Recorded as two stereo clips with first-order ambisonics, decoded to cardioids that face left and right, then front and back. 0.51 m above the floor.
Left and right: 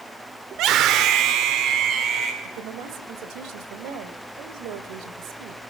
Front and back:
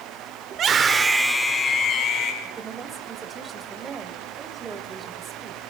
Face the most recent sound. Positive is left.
turn(degrees=-110)